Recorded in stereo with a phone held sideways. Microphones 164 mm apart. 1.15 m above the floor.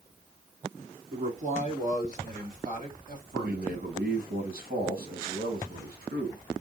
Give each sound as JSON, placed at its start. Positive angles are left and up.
{"t": 1.1, "sound": "a man speaking", "side_deg": -40, "distance_m": 2.0}
{"t": 3.4, "sound": "a man speaking", "side_deg": -70, "distance_m": 2.0}